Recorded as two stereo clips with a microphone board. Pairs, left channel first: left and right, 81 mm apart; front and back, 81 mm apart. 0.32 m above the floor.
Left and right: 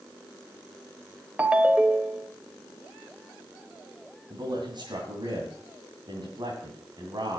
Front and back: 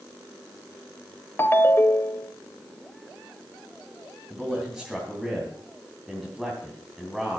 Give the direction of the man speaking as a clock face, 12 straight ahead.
3 o'clock.